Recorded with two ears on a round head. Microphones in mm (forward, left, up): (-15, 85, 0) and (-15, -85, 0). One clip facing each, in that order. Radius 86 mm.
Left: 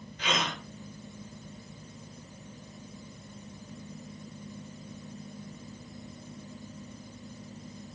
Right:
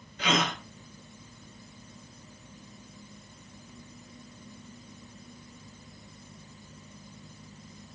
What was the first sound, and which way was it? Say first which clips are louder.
A gasp: right 4 dB; 55° right (ahead or behind).